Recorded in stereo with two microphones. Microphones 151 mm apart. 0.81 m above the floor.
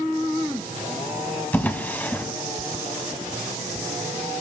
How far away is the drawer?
About 1.2 m.